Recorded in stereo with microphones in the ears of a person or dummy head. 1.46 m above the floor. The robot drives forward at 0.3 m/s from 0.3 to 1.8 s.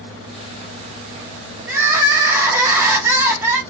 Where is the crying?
10° right (ahead or behind), 2.0 m.